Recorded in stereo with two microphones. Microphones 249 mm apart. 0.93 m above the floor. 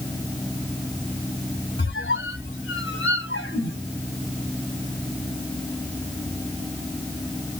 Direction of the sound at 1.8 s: 55° left (ahead or behind).